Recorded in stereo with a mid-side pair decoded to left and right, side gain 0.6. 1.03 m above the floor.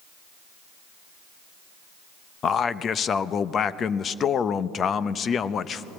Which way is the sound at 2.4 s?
40° left.